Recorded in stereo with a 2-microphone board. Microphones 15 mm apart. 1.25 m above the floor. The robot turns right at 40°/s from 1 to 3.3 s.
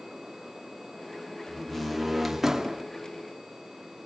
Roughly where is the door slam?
Behind left.